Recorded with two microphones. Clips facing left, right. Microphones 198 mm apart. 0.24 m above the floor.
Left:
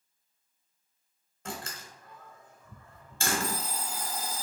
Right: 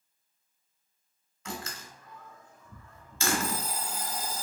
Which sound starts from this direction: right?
An alarm clock, at 3.4 s.